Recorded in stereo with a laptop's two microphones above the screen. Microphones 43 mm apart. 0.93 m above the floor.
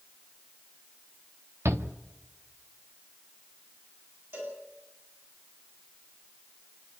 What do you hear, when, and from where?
1.6 s a shout: 75° right (ahead or behind), 1.4 m
4.3 s a cowbell: 60° right (ahead or behind), 9.5 m